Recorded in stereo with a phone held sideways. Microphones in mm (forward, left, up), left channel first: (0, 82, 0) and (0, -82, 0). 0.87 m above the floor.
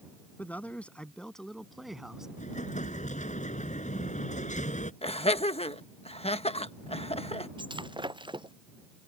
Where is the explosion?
45° left (ahead or behind).